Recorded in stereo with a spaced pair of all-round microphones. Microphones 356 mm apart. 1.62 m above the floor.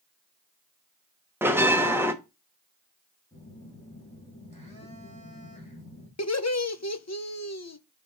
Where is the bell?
5° right (ahead or behind), 0.7 m.